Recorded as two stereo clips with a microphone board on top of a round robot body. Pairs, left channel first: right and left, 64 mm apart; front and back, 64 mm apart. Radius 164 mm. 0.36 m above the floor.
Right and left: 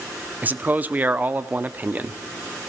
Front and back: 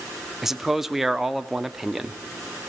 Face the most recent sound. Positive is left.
turn(degrees=100)